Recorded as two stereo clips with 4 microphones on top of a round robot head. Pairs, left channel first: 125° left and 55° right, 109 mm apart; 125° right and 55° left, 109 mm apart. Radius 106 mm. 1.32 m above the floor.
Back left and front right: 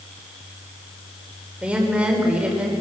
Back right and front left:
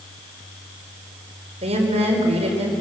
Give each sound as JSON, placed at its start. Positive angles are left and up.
{"t": 1.6, "sound": "a woman speaking", "azimuth_deg": 25, "distance_m": 4.5}